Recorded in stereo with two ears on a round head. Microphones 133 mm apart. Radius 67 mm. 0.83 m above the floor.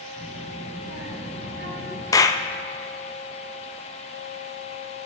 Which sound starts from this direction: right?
A child speaking, at 0.2 s.